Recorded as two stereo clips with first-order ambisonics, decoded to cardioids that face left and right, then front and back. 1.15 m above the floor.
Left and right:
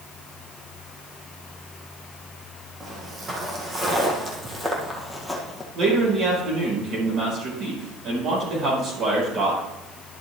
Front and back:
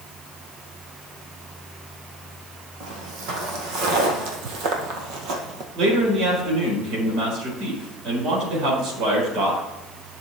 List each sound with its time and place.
2.8 s footsteps: 155° right, 3 m; by 5.7 s 170° left, 1.5 m
5.8 s a man speaking: 140° right, 4.5 m